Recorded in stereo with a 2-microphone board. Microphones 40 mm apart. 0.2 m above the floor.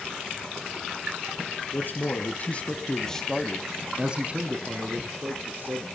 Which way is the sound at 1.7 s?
50° left (ahead or behind).